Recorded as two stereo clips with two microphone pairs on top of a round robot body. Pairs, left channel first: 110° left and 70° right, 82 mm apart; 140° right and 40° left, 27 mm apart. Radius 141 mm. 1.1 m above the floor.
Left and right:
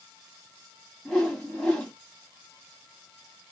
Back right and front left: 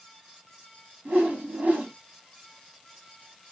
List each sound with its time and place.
1.1 s a whoosh: 25° left, 2 m